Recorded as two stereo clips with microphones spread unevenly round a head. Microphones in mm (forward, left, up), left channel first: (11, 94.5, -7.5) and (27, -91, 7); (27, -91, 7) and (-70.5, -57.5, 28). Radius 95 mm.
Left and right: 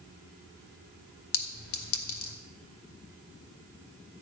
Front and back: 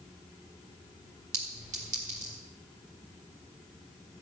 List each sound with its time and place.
1.3 s a clink: 115° left, 2.0 m